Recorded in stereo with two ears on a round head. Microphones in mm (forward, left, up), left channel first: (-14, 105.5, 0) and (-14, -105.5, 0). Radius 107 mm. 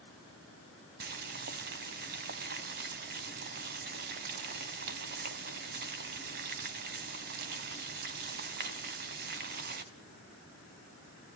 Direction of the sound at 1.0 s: 45° right (ahead or behind).